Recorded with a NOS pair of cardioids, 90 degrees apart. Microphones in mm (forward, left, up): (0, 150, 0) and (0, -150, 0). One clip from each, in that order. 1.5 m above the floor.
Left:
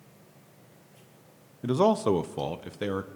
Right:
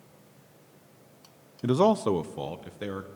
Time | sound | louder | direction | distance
1.6 | a man speaking | right 1 dB | 20° right | 0.5 m